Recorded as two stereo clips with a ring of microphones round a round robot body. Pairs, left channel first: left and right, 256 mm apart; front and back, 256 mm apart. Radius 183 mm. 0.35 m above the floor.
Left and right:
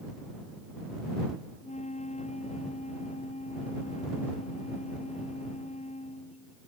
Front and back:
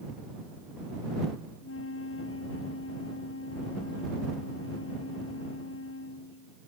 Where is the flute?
30° left.